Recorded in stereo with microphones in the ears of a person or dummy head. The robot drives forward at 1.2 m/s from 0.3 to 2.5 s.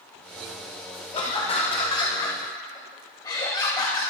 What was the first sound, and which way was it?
Laughter, 35° left (ahead or behind).